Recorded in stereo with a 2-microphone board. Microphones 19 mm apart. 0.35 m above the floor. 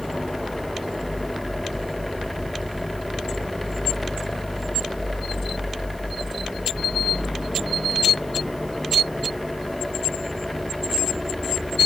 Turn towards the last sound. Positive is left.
No sound to turn to.